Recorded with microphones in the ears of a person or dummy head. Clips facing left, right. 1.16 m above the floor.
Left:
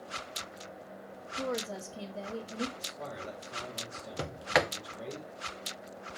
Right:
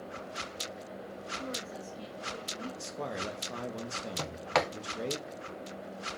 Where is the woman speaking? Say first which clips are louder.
Left 7 dB; 65° left (ahead or behind), 2.0 m.